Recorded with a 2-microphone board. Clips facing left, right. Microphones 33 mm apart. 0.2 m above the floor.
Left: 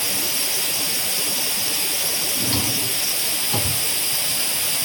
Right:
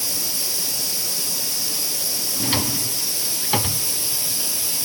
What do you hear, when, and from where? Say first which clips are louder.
0.0 s running water: left 3 dB; 50° left (ahead or behind), 0.9 m
2.4 s a drawer: right 3 dB; 40° right (ahead or behind), 0.6 m